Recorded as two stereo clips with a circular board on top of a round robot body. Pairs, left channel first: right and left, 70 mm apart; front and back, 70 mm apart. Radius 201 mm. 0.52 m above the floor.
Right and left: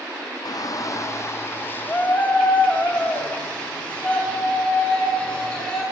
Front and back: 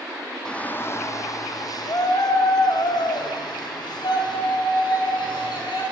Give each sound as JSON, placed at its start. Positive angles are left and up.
{"t": 0.5, "sound": "a shout", "azimuth_deg": -80, "distance_m": 1.2}